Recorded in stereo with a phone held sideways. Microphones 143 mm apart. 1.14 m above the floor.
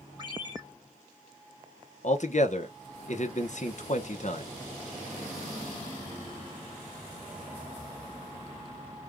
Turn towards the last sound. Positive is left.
turn(degrees=55)  # may be behind; listen again after turning